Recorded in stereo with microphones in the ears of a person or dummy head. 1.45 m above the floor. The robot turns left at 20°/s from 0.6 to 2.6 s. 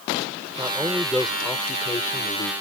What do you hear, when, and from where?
0.6 s a man speaking: 165° right; by 2.5 s 155° left